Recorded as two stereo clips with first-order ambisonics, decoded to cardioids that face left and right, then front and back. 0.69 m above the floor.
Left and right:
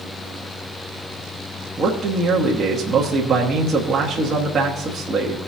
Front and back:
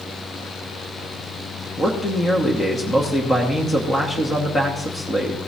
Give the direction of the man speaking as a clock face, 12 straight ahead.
2 o'clock.